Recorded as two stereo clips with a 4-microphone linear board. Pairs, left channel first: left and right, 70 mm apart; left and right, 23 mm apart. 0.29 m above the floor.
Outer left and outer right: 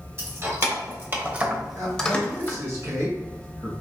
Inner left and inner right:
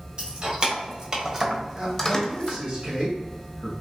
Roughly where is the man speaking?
Right.